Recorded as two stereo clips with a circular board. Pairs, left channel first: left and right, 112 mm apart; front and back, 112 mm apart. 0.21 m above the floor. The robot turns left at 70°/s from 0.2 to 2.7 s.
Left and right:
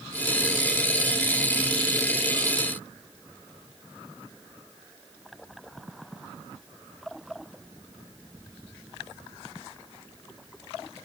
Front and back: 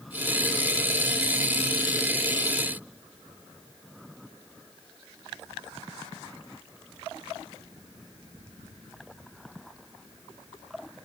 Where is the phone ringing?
I don't hear a phone ringing.